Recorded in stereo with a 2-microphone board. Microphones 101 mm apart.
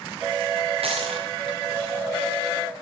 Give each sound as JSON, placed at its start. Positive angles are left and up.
{"t": 0.8, "sound": "a dropped coin", "side_deg": -80, "distance_m": 3.0}